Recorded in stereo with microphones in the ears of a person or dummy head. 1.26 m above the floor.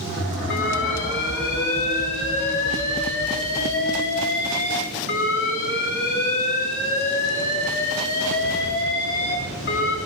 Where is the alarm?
60° left (ahead or behind), 5 m.